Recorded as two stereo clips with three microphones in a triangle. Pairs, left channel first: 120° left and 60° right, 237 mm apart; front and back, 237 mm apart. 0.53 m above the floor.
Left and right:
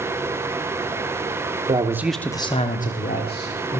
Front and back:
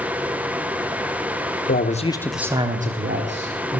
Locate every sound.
1.7 s a man speaking: straight ahead, 1.0 m; by 3.8 s 160° left, 1.9 m